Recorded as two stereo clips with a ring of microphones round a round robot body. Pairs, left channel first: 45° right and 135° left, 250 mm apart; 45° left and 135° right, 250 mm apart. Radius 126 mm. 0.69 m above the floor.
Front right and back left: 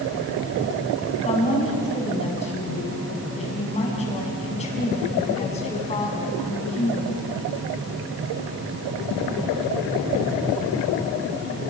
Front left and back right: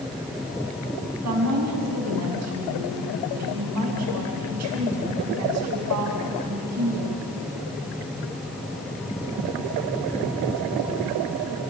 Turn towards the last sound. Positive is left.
turn(degrees=-110)